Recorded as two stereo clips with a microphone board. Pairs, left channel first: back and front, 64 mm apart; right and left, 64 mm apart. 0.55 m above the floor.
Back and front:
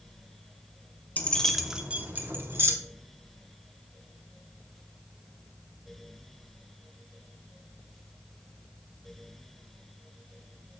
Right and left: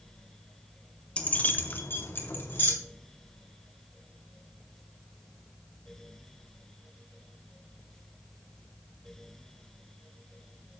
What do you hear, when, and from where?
1.2 s keys jangling: 145° right, 0.7 m; by 2.7 s 40° right, 1.3 m